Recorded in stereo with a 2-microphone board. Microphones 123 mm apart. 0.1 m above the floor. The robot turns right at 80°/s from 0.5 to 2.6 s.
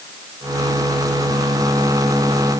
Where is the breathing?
No breathing in this recording.